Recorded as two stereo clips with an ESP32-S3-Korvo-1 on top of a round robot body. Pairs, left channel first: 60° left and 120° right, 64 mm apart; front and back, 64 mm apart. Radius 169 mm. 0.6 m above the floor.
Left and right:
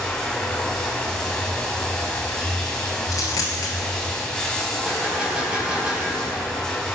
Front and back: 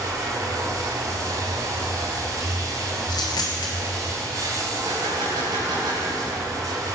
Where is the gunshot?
165° left, 4 m.